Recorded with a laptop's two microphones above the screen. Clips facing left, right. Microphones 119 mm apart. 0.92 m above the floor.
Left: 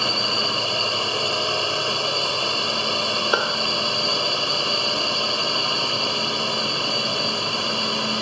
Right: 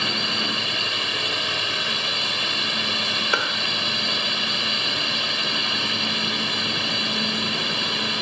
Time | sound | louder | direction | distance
0.0 | a drone | left 3 dB | 30° left (ahead or behind) | ?
3.3 | a clap | left 3 dB | 20° left (ahead or behind) | ?